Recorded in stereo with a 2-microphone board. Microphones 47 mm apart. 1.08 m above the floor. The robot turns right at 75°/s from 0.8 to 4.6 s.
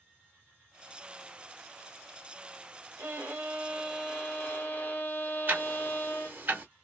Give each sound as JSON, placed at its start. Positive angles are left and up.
{"t": 3.0, "sound": "a violin", "azimuth_deg": -80, "distance_m": 1.5}
{"t": 5.5, "sound": "ticking", "side_deg": -45, "distance_m": 0.9}